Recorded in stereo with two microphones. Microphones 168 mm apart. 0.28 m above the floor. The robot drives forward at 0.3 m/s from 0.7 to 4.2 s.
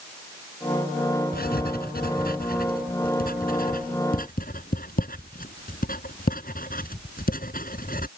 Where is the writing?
65° left (ahead or behind); by 8.1 s 55° left (ahead or behind).